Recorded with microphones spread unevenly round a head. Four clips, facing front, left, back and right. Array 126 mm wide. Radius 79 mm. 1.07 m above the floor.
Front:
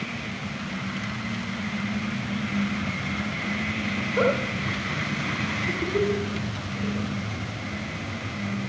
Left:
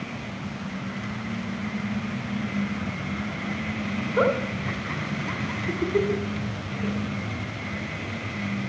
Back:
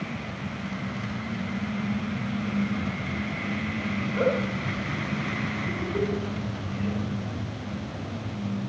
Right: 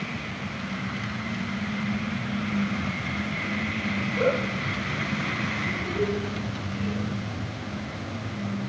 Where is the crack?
I don't hear a crack.